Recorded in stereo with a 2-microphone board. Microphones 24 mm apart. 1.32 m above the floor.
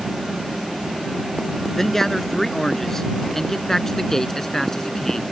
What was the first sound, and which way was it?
A man speaking, 15° left (ahead or behind).